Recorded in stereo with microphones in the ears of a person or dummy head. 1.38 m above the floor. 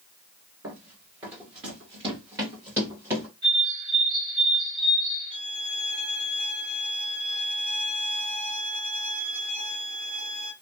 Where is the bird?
25° right (ahead or behind), 1.4 m.